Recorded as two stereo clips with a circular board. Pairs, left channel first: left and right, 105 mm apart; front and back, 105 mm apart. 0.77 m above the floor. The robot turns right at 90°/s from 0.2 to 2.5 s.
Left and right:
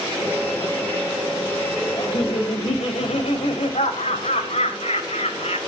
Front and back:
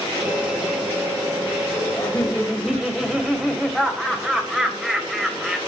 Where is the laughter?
45° left, 3.5 m; by 5.6 s 95° left, 3.5 m.